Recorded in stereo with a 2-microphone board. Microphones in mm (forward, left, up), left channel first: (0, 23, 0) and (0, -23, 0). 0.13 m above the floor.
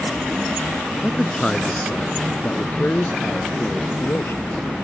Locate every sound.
1.0 s a man speaking: 5° left (ahead or behind); by 4.4 s 65° left (ahead or behind)